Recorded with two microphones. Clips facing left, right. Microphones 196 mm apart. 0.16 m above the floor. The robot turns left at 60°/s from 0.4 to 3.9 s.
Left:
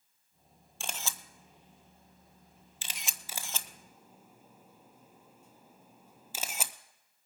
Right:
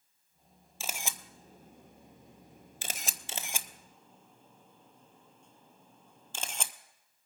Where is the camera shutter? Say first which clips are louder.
Right 1 dB; centre (ahead or behind), 0.5 m; by 6.7 s 5° left (ahead or behind), 0.5 m.